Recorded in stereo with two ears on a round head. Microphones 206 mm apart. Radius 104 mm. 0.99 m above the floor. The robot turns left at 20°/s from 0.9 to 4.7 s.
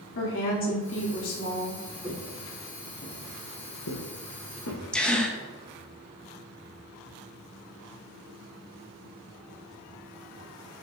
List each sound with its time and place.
0.1 s a woman speaking: 65° left (ahead or behind), 2.5 m; by 1.8 s 75° left (ahead or behind), 2.5 m
2.0 s footsteps: 15° right (ahead or behind), 2.5 m; by 4.8 s 60° left (ahead or behind), 4 m
4.9 s a gasp: 5° left (ahead or behind), 0.8 m